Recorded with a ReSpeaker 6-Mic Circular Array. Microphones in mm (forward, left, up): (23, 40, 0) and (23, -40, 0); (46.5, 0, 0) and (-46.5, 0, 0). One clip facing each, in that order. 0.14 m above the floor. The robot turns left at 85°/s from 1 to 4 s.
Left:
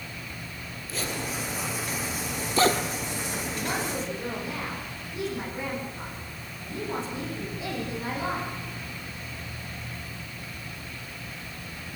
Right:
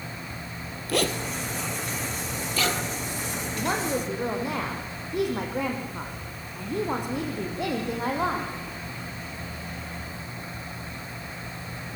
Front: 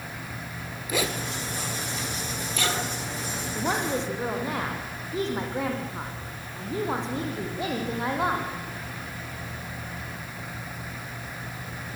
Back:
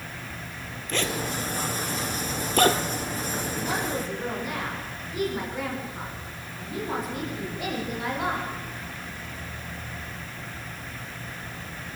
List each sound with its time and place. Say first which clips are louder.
0.9 s a zipper: right 6 dB, even; 80° right, 1.5 m; by 2.8 s 125° left, 1.5 m
3.5 s a woman speaking: right 5 dB, front 4 dB; 25° right, 6.5 m; by 8.5 s 65° right, 6.5 m